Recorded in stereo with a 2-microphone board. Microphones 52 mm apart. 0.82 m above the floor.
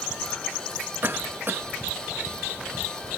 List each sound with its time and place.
1.0 s a cough: 45° right (ahead or behind), 0.8 m